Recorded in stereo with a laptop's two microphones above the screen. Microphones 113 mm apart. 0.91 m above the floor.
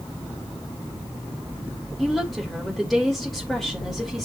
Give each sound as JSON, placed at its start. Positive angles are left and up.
{"t": 2.0, "sound": "a woman speaking", "side_deg": 0, "distance_m": 3.5}